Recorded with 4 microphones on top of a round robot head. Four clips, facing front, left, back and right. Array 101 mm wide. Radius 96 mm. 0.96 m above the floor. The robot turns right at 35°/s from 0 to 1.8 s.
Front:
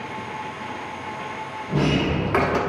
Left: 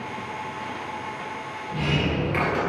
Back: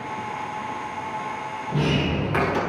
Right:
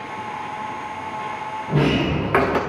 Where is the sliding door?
70° right, 1.0 m.